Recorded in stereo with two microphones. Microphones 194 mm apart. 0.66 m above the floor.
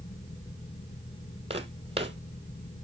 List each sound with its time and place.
1.5 s footsteps: 30° right (ahead or behind), 1.4 m